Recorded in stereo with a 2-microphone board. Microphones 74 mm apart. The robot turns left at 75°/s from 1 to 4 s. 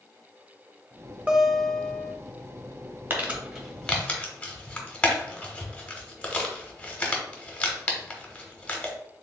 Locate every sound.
1.3 s a guitar: 160° right, 0.6 m; by 2.1 s 135° left, 0.6 m
3.1 s crumpling: 30° right (ahead or behind), 0.9 m; by 8.9 s 20° left (ahead or behind), 0.9 m